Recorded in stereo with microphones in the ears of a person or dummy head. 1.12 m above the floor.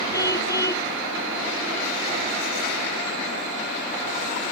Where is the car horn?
15° left (ahead or behind).